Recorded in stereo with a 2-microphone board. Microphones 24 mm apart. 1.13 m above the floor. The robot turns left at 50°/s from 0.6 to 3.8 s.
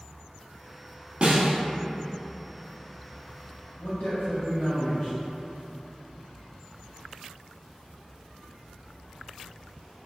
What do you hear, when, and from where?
1.2 s a snare drum: 50° right (ahead or behind), 0.5 m
3.8 s a man speaking: 65° left (ahead or behind), 1.6 m